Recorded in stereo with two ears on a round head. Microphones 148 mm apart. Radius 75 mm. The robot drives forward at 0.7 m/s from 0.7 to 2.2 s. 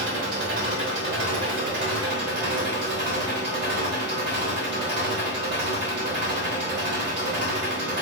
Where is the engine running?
85° right, 3.5 m; by 8.0 s 70° right (ahead or behind), 3.5 m.